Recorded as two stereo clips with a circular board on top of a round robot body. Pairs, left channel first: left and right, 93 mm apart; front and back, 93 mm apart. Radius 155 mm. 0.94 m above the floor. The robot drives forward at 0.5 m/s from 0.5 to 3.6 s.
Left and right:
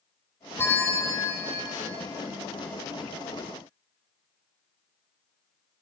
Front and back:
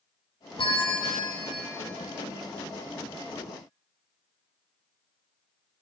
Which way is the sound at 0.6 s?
25° left.